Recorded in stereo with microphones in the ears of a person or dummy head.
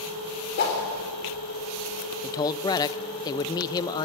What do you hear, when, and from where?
0.6 s a whoosh: 60° left (ahead or behind), 4 m
2.2 s a man speaking: 20° left (ahead or behind), 0.5 m